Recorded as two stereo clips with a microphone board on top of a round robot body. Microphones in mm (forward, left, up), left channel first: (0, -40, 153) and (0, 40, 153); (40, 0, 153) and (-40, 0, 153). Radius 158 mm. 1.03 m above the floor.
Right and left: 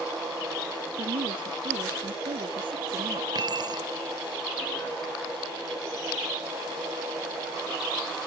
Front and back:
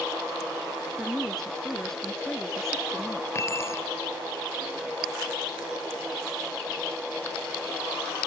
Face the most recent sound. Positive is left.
turn(degrees=55)